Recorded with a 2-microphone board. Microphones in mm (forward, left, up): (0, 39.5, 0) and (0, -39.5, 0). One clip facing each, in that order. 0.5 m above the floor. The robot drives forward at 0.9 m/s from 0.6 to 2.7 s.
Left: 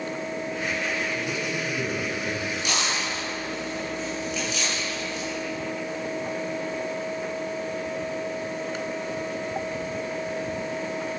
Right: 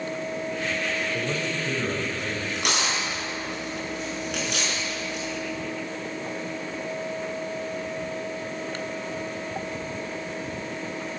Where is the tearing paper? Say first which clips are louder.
Right 1 dB; 70° right (ahead or behind), 5.5 m; by 5.3 s 65° right (ahead or behind), 6 m.